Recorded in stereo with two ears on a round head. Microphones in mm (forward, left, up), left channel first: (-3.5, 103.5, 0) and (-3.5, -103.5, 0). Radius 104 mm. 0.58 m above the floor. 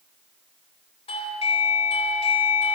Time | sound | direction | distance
1.1 | a doorbell | 25° left (ahead or behind) | 3.5 m